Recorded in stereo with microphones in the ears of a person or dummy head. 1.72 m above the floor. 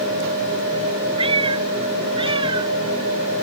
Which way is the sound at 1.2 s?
35° right (ahead or behind).